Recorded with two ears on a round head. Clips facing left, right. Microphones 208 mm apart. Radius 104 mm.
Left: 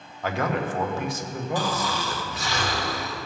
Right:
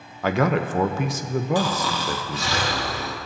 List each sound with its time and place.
0.2 s a man speaking: 60° right (ahead or behind), 0.7 m
1.6 s snoring: 60° right (ahead or behind), 1.4 m